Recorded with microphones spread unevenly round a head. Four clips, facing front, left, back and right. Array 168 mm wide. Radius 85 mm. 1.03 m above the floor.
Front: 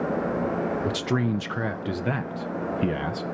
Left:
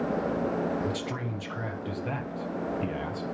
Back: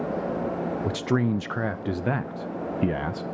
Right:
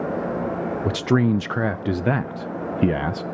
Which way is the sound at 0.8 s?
80° right.